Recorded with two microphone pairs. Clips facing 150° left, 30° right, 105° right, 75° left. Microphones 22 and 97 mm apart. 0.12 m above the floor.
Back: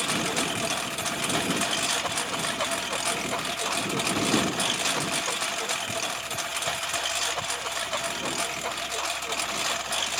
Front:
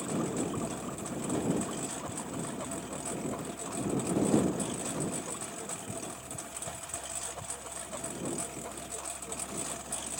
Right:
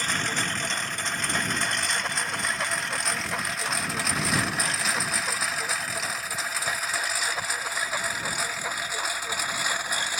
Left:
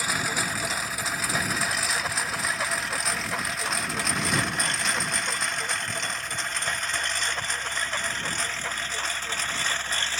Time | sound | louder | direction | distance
0.0 | a lawn mower | back 7 dB, left 1 dB | 155° left | ?